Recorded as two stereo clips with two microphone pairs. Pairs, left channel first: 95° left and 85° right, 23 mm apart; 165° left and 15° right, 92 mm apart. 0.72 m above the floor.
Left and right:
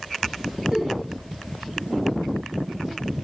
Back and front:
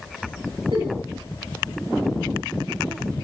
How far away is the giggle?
About 6 m.